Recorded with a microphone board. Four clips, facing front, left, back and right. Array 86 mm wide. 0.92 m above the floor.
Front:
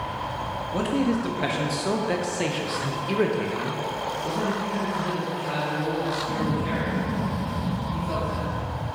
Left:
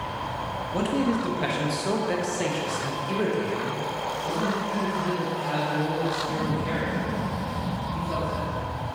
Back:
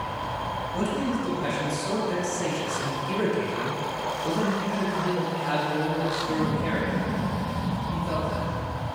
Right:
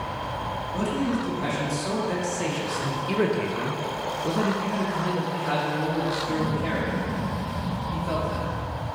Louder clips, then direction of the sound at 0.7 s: Left 2 dB, front 4 dB; 35° left.